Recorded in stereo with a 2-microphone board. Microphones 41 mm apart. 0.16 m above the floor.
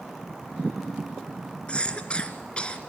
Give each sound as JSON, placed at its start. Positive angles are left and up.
{"t": 1.7, "sound": "a cough", "side_deg": 25, "distance_m": 2.0}